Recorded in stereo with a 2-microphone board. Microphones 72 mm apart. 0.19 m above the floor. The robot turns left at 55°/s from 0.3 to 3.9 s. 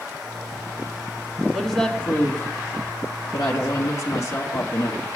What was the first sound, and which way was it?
A woman speaking, straight behind.